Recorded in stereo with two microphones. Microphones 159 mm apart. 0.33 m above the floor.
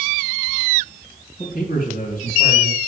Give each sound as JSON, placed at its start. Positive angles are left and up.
{"t": 1.4, "sound": "a man speaking", "side_deg": 55, "distance_m": 2.5}